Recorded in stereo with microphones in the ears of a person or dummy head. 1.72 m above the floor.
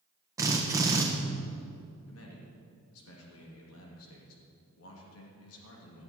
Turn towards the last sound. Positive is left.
turn(degrees=85)